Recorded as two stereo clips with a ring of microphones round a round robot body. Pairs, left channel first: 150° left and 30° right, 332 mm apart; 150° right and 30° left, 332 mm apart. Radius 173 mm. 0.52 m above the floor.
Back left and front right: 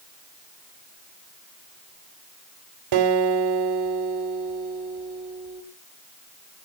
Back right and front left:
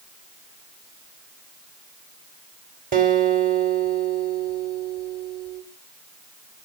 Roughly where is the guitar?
Ahead right.